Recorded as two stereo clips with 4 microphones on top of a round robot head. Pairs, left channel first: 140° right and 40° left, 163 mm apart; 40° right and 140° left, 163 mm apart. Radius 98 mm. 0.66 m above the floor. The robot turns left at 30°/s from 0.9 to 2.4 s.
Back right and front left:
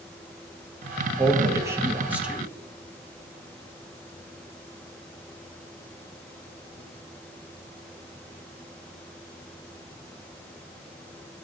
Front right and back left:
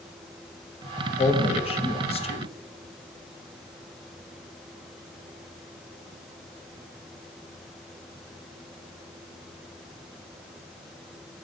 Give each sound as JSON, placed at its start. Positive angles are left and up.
{"t": 1.2, "sound": "a man speaking", "azimuth_deg": -10, "distance_m": 0.8}